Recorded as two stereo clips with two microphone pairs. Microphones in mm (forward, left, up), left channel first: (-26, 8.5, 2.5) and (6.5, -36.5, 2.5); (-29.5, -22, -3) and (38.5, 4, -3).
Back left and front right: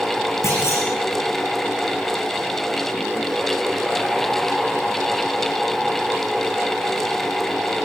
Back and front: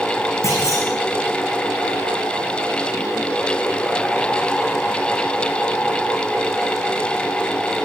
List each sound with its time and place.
0.4 s a clunk: 155° left, 9.5 m